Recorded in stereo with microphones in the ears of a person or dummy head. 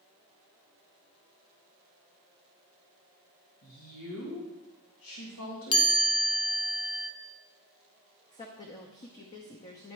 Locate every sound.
3.6 s a woman speaking: 70° left (ahead or behind), 1.7 m
5.7 s a chime: 30° left (ahead or behind), 0.8 m
8.3 s a woman speaking: 30° left (ahead or behind), 0.7 m